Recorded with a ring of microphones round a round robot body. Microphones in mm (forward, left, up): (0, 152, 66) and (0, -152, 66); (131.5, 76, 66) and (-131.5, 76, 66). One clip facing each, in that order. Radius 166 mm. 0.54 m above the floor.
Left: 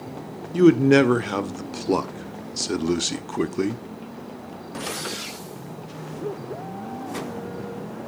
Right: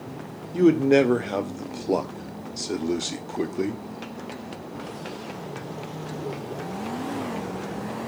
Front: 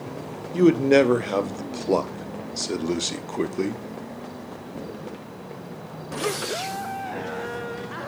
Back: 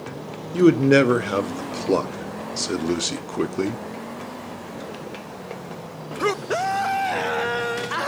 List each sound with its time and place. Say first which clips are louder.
0.5 s a man speaking: left 3 dB, back 2 dB; 120° left, 0.7 m